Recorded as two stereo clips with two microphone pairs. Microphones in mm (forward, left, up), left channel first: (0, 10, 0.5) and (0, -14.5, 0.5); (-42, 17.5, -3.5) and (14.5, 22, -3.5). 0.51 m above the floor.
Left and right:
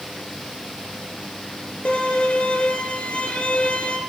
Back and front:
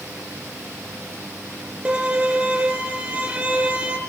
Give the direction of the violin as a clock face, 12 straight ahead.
10 o'clock.